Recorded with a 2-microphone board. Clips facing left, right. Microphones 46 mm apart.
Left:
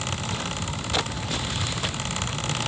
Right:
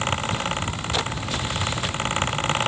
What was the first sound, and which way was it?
Only background noise.